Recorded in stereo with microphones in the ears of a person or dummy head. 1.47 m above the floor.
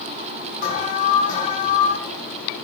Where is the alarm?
50° left (ahead or behind), 6 m.